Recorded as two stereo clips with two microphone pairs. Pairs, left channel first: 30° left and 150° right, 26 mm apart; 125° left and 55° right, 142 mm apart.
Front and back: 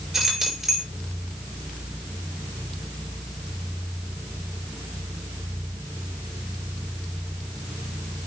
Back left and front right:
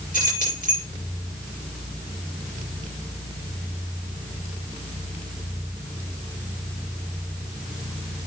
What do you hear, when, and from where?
0.1 s keys jangling: 125° left, 5.5 m